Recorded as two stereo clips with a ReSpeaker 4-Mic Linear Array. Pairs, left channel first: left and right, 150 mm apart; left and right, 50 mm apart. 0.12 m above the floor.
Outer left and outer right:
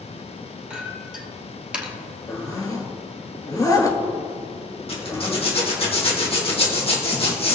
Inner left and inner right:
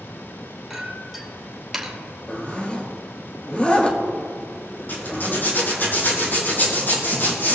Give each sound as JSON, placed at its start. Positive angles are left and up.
{"t": 0.7, "sound": "a clink", "side_deg": -5, "distance_m": 1.7}
{"t": 2.3, "sound": "a zipper", "side_deg": 25, "distance_m": 1.4}
{"t": 4.9, "sound": "a zipper", "side_deg": 40, "distance_m": 3.0}